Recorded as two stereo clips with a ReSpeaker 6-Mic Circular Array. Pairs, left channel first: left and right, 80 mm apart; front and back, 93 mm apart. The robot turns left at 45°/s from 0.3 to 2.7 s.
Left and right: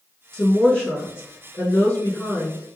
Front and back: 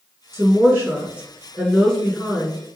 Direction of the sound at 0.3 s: 160° left.